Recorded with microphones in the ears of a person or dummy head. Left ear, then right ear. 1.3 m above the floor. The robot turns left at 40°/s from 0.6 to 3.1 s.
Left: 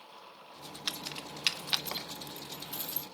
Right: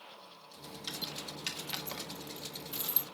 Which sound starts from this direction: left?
Keys jangling, at 0.9 s.